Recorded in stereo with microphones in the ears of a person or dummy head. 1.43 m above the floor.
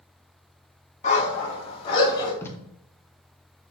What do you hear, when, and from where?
1.0 s a dog barking: 40° left (ahead or behind), 3.5 m; by 2.3 s 25° left (ahead or behind), 3 m
2.4 s tape being pulled: 15° left (ahead or behind), 1.8 m